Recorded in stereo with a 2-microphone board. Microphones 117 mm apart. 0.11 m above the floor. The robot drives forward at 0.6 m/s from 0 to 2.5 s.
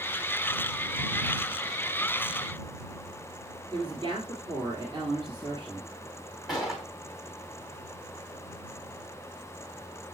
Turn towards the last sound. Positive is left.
turn(degrees=0)  # may be behind; listen again after turning